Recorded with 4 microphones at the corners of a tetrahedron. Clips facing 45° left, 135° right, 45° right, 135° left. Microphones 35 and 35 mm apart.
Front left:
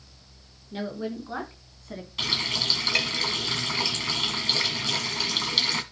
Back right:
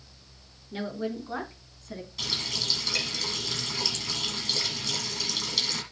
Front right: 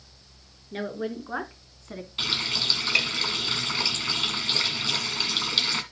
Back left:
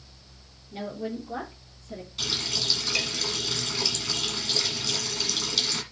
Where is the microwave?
I don't hear a microwave.